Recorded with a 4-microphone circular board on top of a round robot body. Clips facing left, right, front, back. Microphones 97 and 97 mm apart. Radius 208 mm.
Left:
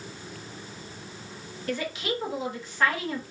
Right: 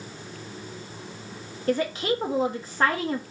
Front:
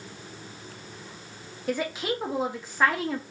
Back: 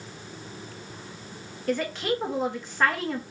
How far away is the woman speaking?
About 1.3 m.